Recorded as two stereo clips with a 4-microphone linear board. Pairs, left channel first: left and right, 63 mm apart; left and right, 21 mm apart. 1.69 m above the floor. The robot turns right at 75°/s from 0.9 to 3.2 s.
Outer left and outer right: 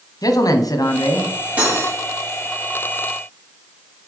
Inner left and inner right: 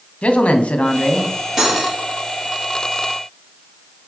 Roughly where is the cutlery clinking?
Behind right.